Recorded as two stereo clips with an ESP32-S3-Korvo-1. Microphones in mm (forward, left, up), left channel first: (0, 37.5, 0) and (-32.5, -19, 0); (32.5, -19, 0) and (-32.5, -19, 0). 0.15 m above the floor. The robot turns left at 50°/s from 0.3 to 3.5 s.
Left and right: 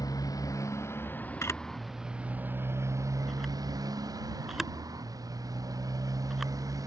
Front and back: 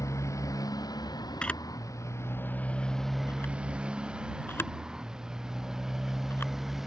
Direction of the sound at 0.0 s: 40° left.